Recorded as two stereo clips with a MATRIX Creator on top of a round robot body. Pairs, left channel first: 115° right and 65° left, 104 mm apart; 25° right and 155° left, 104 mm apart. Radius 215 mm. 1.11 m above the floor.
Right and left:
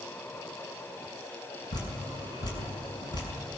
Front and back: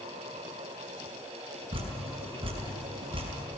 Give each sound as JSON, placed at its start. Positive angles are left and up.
{"t": 1.7, "sound": "dripping", "azimuth_deg": -165, "distance_m": 5.0}